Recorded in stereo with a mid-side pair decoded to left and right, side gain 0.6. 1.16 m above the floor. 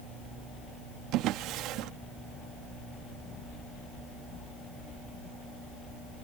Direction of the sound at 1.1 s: 70° right.